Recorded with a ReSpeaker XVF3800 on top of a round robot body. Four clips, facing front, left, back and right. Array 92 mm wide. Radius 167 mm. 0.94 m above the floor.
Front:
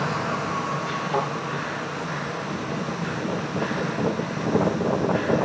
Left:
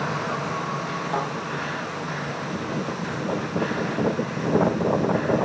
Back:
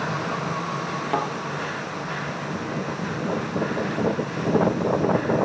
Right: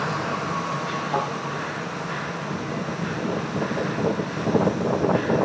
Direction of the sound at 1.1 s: Straight behind.